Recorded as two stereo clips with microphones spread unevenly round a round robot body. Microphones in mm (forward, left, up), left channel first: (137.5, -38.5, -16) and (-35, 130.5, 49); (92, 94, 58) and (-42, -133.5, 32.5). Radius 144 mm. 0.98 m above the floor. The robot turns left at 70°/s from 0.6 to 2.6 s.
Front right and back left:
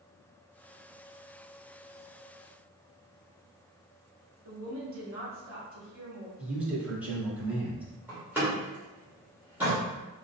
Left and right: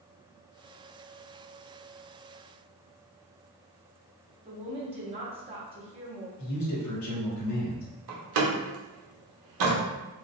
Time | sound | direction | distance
4.5 | a woman speaking | straight behind | 1.2 m
6.4 | a man speaking | 45° left | 1.2 m
8.1 | a door slam | 140° right | 0.8 m